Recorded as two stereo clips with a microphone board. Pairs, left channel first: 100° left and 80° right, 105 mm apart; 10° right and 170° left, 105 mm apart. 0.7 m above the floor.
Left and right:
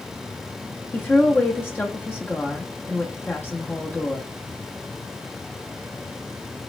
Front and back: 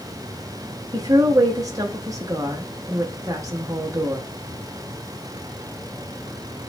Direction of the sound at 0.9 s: 155° left.